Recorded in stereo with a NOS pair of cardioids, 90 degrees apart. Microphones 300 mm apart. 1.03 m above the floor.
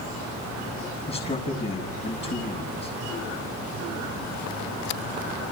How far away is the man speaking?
About 5.5 m.